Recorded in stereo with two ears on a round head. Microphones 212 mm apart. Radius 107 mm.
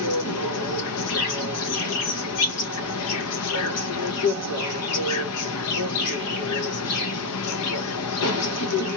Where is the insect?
75° left (ahead or behind), 0.7 m.